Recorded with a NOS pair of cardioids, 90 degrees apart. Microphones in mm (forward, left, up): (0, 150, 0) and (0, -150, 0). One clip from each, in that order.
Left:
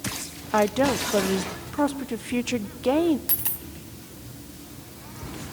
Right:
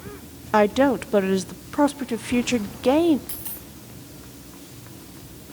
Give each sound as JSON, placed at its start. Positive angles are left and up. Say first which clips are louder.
{"t": 0.5, "sound": "a woman speaking", "louder": "right 3 dB", "azimuth_deg": -15, "distance_m": 0.5}
{"t": 3.3, "sound": "a dropped coin", "louder": "left 5 dB", "azimuth_deg": 50, "distance_m": 3.5}